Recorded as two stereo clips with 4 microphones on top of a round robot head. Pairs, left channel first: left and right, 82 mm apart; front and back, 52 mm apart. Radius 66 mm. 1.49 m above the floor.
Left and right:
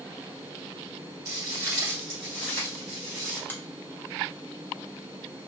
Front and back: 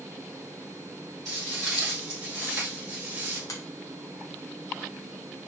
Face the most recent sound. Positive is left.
turn(degrees=25)